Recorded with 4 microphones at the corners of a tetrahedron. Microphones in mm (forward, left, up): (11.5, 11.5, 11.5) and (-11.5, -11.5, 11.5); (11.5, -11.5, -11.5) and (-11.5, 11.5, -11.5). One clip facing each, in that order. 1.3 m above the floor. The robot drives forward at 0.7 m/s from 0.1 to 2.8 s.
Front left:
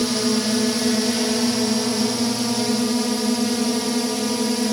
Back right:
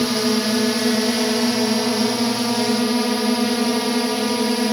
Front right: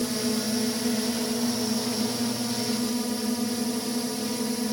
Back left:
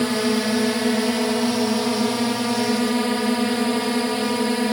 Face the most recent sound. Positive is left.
turn(degrees=165)